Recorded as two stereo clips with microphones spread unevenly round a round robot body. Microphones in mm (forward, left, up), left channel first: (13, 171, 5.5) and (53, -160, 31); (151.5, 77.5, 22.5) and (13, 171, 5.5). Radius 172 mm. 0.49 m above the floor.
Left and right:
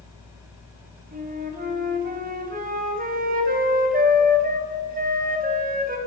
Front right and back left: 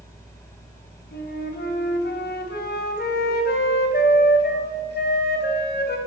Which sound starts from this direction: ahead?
A flute, at 1.1 s.